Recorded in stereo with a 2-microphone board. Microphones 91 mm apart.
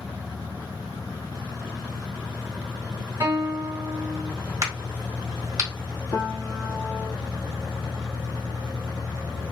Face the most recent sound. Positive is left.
turn(degrees=45)  # may be behind; listen again after turning